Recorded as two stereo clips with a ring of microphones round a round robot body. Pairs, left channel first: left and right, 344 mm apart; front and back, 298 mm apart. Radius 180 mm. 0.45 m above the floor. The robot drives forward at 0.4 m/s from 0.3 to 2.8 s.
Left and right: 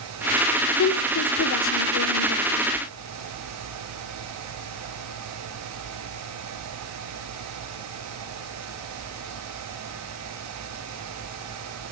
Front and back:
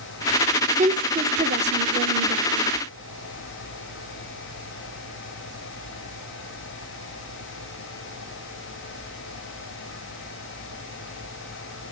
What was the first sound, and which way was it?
A woman speaking, 120° left.